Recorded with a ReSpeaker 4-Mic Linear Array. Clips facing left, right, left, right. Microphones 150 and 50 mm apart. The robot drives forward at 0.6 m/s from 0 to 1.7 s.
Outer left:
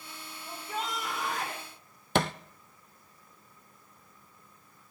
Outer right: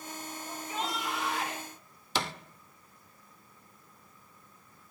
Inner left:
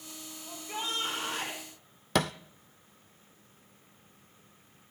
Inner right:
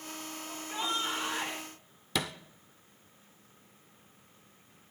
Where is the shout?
45° left (ahead or behind), 4 m; by 1.6 s 40° left (ahead or behind), 4.5 m.